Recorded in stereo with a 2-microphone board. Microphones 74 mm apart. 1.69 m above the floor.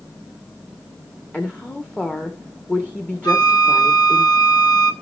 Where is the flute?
55° left (ahead or behind), 3.5 m.